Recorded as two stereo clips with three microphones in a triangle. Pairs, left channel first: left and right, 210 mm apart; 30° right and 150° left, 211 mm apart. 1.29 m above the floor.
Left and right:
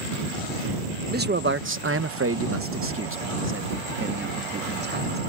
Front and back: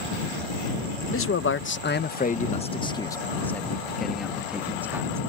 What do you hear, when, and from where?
1.1 s a man speaking: 45° right; by 5.2 s 130° right